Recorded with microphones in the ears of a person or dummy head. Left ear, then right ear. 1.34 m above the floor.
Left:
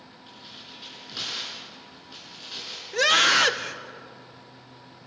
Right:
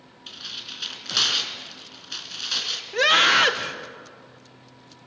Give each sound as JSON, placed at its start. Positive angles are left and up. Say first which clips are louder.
{"t": 0.3, "sound": "tearing paper", "louder": "right 10 dB", "side_deg": -60, "distance_m": 4.0}
{"t": 2.9, "sound": "a scream", "louder": "right 2 dB", "side_deg": 0, "distance_m": 1.1}